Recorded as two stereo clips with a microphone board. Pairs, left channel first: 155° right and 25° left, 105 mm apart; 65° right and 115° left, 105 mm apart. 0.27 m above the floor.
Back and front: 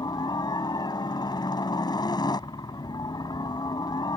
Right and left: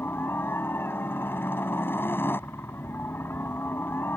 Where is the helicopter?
130° right.